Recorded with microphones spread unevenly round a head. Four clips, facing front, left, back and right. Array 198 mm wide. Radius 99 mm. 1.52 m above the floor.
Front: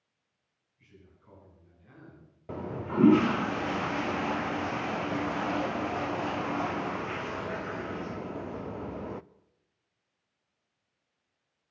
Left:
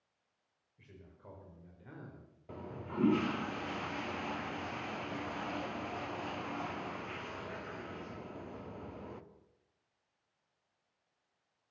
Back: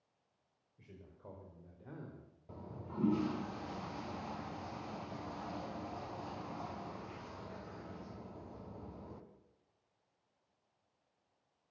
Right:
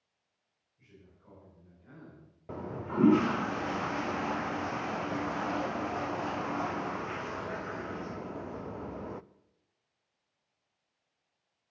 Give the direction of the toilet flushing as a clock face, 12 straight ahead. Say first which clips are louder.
Right 7 dB, front 14 dB; 1 o'clock.